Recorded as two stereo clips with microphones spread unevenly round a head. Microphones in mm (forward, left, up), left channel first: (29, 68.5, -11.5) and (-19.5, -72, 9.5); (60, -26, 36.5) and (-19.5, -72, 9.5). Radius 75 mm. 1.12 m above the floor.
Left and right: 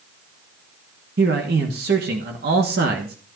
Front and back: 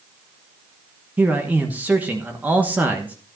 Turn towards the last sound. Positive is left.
turn(degrees=-85)